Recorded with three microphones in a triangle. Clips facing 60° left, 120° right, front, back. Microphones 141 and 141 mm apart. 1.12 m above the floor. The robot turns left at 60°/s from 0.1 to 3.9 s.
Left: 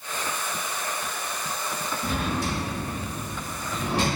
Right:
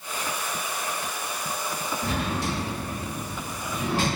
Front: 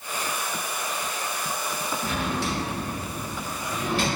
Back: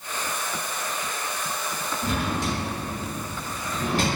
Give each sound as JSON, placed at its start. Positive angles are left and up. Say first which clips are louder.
{"t": 2.0, "sound": "a drawer", "louder": "left 1 dB, back 3 dB", "azimuth_deg": -115, "distance_m": 1.0}